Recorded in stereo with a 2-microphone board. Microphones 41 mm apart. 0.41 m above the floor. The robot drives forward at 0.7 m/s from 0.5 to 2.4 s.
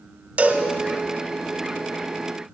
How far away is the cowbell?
About 1.3 m.